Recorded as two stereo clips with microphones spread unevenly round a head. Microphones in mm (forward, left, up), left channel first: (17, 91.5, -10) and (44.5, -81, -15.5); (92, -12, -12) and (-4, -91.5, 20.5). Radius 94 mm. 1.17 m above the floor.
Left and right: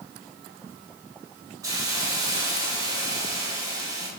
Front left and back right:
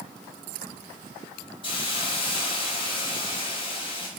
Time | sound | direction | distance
1.6 | a hiss | 10° right | 3 m